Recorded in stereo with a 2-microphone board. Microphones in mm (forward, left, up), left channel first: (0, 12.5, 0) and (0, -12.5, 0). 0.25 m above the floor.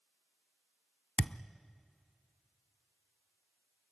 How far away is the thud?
About 0.5 m.